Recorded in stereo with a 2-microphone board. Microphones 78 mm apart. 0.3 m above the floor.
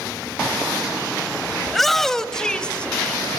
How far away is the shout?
About 1.5 m.